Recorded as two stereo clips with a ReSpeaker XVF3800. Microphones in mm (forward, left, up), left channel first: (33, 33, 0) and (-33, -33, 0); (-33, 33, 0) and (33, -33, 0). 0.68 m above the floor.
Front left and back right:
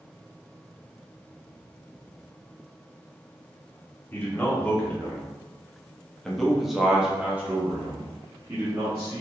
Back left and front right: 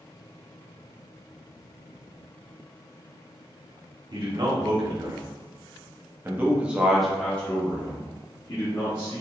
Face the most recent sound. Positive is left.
turn(degrees=165)